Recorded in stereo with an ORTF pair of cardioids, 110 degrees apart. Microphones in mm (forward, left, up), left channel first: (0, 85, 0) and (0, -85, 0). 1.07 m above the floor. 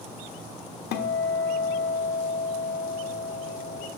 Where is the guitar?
65° left, 1.3 m.